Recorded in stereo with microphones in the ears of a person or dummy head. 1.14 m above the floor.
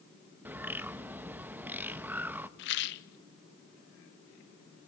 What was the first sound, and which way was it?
A bird, 10° right (ahead or behind).